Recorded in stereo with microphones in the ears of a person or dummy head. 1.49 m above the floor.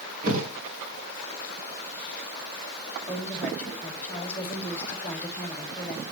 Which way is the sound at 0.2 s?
50° right (ahead or behind).